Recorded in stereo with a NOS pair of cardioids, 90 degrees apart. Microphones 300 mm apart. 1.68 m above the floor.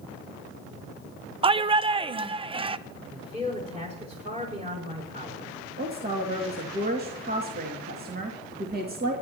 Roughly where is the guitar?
No guitar in this recording.